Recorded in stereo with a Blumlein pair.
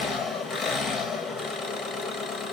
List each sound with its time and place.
0.0 s an engine running: 15° left, 0.7 m